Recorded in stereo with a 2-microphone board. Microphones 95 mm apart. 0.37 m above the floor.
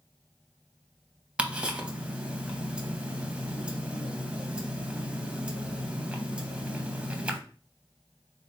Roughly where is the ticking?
Centre.